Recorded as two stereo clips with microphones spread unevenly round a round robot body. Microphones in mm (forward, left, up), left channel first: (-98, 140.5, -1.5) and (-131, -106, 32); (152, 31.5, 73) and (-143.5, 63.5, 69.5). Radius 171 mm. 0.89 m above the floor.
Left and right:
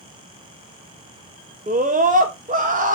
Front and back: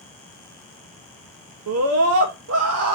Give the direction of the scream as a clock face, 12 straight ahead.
5 o'clock.